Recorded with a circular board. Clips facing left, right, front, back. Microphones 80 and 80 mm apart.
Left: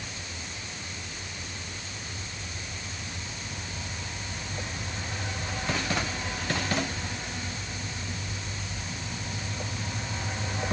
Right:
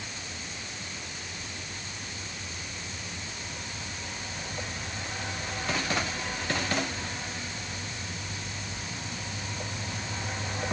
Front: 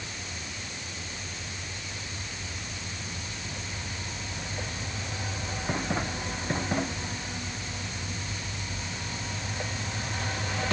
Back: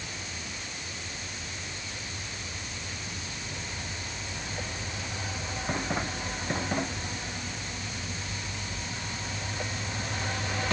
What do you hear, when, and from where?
Only background noise.